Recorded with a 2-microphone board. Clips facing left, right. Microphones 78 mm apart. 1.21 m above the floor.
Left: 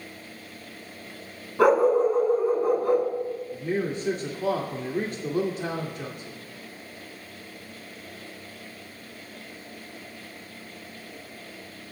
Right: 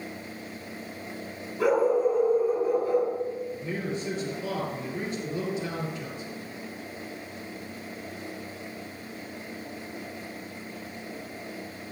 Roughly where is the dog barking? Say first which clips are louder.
Left 4 dB; left.